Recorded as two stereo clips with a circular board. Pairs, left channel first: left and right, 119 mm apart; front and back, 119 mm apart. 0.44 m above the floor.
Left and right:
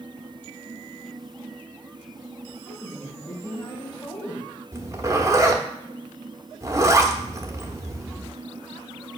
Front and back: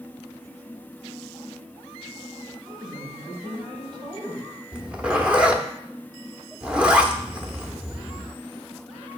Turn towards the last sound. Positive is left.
turn(degrees=-115)